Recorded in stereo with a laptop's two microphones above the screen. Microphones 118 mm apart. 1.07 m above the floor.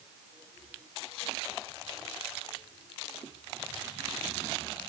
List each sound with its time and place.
Only background noise.